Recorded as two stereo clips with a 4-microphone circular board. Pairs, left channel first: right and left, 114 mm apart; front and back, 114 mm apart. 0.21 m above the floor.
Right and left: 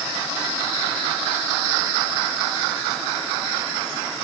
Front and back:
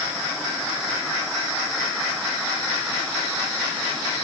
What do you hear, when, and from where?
Only background noise.